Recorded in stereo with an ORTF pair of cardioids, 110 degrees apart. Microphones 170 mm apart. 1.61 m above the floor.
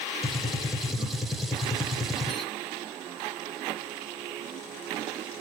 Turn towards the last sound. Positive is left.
turn(degrees=0)